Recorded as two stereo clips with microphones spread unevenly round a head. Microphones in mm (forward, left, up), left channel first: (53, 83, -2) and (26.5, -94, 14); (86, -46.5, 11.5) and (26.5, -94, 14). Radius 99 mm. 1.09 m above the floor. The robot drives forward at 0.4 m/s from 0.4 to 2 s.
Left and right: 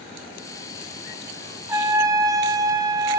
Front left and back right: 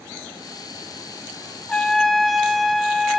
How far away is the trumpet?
About 0.5 m.